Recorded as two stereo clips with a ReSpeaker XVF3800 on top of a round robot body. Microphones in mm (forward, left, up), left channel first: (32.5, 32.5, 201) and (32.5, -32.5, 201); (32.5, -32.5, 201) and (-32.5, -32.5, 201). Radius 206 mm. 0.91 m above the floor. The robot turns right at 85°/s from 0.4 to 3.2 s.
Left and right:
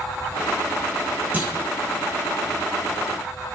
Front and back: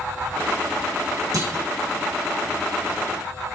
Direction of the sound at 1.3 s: 150° right.